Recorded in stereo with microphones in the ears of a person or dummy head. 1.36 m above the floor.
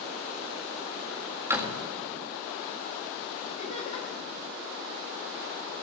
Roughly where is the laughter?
Left.